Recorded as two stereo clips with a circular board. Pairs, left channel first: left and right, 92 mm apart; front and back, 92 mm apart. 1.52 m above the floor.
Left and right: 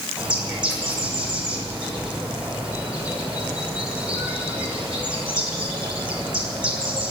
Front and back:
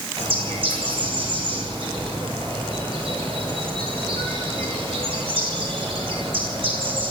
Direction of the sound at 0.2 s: 170° right.